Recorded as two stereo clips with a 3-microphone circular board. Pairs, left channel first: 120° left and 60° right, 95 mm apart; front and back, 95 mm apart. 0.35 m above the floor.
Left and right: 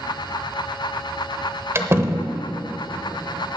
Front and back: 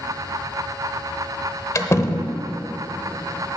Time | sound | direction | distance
1.8 | a door slam | 25° right | 0.8 m